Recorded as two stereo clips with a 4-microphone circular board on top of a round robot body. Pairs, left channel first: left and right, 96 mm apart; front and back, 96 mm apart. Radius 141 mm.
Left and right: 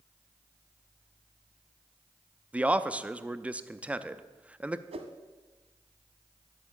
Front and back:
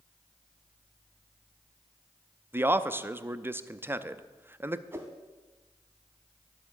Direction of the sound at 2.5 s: 150° right.